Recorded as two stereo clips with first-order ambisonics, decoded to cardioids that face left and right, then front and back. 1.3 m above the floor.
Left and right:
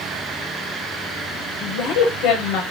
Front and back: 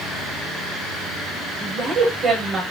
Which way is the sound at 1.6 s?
120° left.